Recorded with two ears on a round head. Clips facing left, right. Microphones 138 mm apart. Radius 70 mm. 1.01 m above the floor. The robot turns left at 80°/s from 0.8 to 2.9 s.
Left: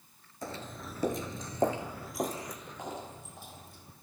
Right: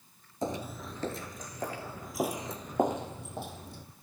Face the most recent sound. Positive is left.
turn(degrees=-55)  # may be behind; listen again after turning